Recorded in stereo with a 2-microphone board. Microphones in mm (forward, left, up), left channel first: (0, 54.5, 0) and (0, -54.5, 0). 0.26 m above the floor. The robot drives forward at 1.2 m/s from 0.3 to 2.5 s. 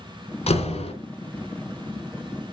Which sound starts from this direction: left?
A door slam, at 0.5 s.